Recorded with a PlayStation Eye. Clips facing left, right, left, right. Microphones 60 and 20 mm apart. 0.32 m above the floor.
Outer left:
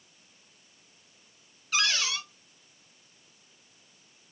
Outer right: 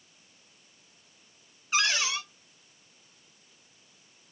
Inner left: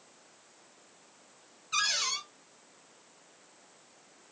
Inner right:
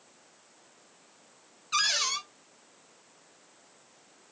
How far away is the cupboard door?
About 1.1 m.